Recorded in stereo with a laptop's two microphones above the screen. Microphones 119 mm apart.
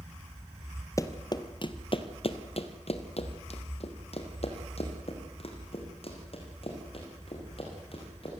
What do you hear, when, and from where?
1.0 s running footsteps: 25° left (ahead or behind), 1.5 m; by 8.4 s 50° left (ahead or behind), 6 m